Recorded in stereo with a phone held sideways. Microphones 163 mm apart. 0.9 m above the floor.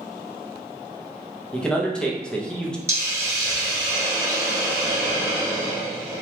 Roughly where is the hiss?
Centre.